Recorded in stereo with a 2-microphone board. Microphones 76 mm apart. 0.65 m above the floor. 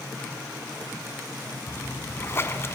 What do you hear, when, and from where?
1.7 s a splash: 35° left (ahead or behind), 1.1 m